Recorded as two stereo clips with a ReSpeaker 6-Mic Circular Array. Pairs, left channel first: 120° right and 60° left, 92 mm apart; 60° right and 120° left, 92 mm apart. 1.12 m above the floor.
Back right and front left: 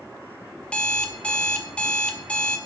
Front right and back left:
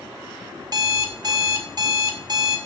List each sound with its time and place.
0.6 s an alarm clock: 165° left, 1.7 m